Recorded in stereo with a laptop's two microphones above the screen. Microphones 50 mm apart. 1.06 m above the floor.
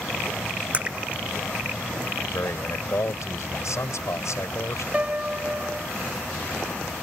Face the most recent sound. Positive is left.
turn(degrees=-25)  # may be behind; listen again after turning